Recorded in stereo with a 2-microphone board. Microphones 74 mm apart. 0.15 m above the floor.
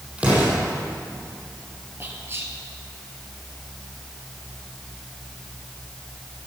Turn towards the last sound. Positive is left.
turn(degrees=-35)  # may be behind; listen again after turning